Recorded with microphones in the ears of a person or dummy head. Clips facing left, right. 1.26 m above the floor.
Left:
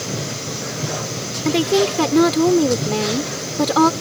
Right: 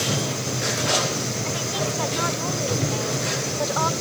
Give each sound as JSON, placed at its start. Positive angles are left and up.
{"t": 1.4, "sound": "a woman speaking", "side_deg": 75}